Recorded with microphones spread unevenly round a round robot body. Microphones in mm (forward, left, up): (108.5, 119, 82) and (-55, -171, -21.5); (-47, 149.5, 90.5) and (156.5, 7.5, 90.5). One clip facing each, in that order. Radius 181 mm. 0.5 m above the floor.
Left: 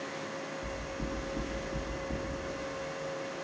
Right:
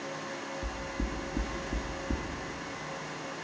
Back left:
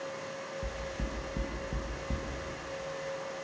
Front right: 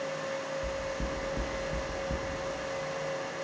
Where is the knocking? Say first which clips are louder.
Right 1 dB, front right 5 dB; 170° right, 2.5 m.